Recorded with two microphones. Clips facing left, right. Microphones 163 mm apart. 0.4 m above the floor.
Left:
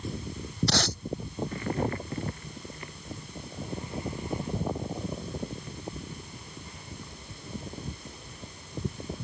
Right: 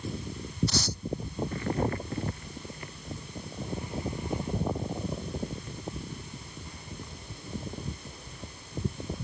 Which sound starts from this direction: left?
Tape being pulled, at 0.7 s.